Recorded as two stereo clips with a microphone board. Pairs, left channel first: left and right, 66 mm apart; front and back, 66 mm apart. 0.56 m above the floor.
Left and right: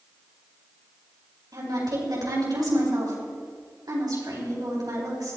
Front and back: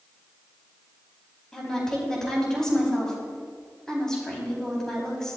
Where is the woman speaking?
80° right, 4.5 m.